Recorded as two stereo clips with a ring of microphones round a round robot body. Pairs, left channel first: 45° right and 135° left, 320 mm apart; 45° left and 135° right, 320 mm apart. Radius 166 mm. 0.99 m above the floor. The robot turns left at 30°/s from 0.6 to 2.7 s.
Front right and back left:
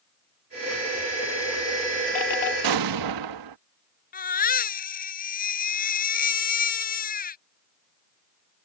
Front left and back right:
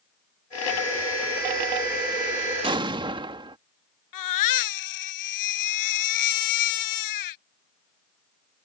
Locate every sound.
2.6 s an explosion: 150° left
4.1 s a baby crying: 20° left